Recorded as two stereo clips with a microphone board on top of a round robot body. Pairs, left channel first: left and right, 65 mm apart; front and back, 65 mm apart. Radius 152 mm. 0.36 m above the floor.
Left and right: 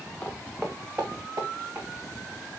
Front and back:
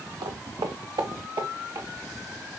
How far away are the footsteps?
About 0.8 m.